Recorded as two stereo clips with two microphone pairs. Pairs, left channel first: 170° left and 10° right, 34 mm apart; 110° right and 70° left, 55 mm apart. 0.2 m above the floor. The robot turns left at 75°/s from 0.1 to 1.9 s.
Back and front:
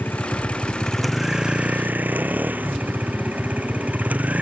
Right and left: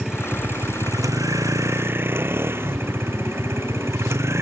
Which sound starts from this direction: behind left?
A vehicle, at 0.0 s.